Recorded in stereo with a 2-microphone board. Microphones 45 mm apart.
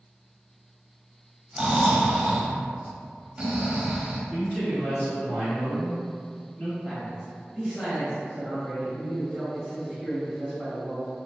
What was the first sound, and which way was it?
Snoring, 15° right (ahead or behind).